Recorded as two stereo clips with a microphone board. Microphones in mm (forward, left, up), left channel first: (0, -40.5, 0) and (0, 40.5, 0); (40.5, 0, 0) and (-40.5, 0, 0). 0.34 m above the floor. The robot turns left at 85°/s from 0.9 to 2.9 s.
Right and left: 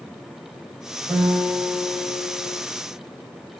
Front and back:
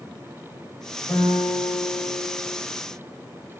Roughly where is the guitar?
Ahead left.